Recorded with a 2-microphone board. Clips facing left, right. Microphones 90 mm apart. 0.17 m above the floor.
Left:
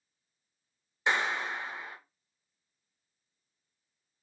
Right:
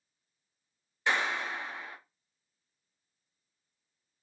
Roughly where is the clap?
Left.